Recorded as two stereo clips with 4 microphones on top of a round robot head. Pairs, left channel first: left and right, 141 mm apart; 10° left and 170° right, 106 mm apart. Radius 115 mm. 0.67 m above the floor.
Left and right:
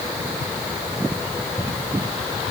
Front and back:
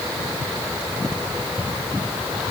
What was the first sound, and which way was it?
Only background noise.